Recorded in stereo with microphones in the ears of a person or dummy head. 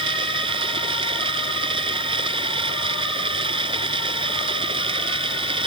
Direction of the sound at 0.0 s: 25° right (ahead or behind).